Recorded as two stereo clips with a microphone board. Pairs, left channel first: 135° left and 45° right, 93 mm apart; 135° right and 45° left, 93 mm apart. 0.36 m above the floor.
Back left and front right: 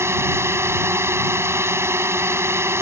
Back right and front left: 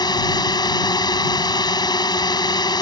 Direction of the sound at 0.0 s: 105° right.